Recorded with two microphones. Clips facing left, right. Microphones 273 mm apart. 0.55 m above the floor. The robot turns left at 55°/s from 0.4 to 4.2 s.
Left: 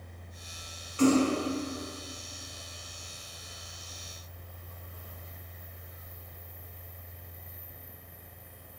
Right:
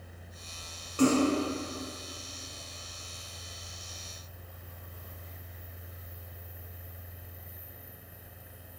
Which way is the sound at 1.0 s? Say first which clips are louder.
Left 1 dB; 50° right (ahead or behind).